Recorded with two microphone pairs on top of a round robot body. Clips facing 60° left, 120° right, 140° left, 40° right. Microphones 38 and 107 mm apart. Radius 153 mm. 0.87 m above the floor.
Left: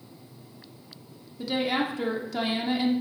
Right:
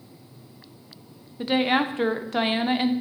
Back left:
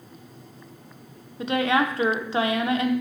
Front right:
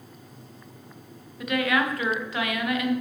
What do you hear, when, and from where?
1.4 s a woman speaking: 165° right, 0.9 m